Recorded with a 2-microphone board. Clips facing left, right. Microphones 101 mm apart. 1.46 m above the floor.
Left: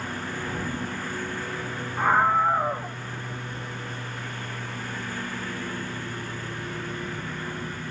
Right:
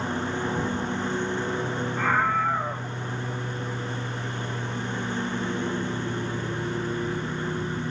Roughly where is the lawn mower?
Right.